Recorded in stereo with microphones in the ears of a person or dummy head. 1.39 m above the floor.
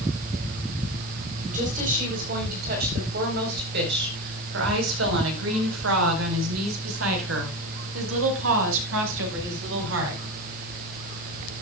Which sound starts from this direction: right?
A woman speaking, at 1.5 s.